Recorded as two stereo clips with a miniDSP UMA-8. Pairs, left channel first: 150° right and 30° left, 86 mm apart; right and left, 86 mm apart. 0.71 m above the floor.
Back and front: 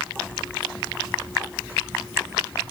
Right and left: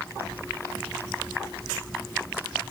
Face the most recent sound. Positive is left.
No sound to turn to.